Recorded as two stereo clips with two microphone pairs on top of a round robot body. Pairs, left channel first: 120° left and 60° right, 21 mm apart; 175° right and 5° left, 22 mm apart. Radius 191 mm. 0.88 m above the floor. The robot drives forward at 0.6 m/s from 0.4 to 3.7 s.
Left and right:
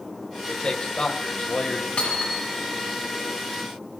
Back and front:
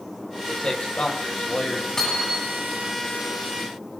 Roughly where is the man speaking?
Behind left.